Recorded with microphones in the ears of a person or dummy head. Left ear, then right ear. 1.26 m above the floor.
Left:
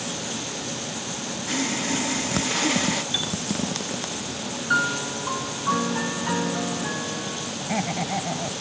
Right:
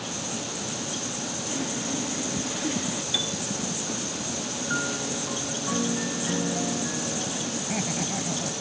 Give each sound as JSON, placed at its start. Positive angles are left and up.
{"t": 1.5, "sound": "sawing", "side_deg": 40}
{"t": 3.1, "sound": "a piano", "side_deg": 10}
{"t": 4.7, "sound": "a piano", "side_deg": 50}
{"t": 7.6, "sound": "laughter", "side_deg": 40}